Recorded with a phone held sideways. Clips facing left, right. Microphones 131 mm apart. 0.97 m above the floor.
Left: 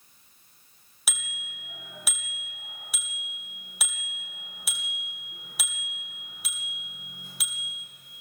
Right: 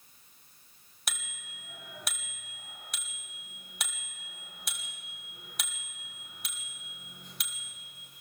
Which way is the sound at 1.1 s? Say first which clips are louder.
Left 2 dB; 5° left (ahead or behind).